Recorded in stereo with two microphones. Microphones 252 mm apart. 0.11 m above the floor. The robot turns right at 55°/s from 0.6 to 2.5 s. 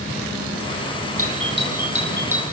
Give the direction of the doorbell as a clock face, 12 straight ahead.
2 o'clock.